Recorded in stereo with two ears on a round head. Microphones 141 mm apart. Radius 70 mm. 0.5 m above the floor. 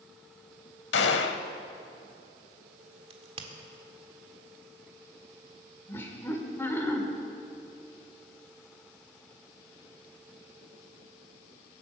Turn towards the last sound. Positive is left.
turn(degrees=15)  # may be behind; listen again after turning